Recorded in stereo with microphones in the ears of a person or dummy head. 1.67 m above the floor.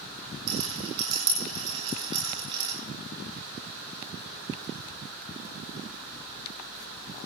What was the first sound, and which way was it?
A rattle, 25° right (ahead or behind).